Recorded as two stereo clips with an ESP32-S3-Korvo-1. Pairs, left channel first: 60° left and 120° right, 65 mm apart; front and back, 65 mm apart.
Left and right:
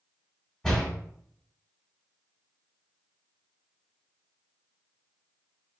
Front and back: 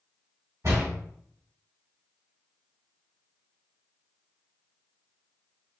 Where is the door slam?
140° left, 2.5 m.